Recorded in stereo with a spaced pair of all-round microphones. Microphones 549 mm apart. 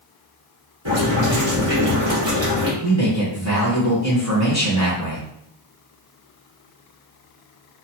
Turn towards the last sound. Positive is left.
turn(degrees=-25)  # may be behind; listen again after turning